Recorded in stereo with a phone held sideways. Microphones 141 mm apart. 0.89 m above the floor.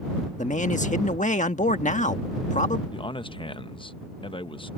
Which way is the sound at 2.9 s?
40° left (ahead or behind).